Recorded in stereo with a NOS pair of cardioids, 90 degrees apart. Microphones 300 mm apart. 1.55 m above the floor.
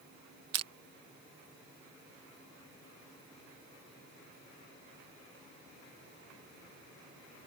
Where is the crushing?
55° right.